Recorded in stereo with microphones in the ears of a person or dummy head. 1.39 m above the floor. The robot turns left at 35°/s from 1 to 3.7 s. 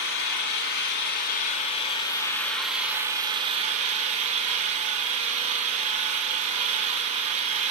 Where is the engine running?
55° left, 1.1 m; by 7.7 s 35° right, 1.1 m.